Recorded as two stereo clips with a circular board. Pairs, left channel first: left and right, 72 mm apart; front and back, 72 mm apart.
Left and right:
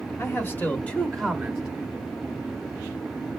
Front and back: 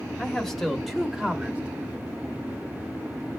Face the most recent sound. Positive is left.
turn(degrees=-130)